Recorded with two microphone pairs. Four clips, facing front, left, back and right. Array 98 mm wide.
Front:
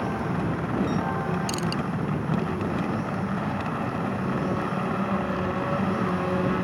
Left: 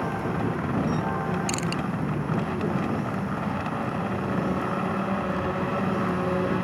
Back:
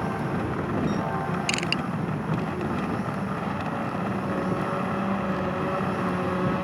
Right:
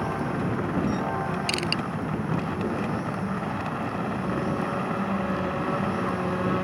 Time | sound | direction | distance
1.5 | crushing | 165° right | ?